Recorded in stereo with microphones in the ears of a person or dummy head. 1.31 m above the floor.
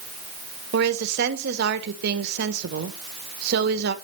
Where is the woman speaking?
60° right (ahead or behind), 1.2 m.